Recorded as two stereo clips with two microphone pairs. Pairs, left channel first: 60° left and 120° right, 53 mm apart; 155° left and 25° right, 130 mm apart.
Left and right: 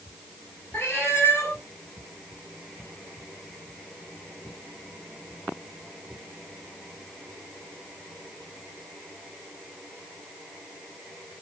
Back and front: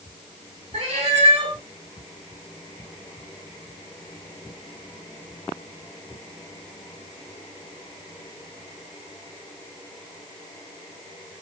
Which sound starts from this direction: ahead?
A cat meowing, at 0.7 s.